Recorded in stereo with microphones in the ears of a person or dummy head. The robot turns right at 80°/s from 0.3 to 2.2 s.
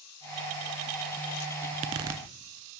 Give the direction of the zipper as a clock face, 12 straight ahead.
2 o'clock.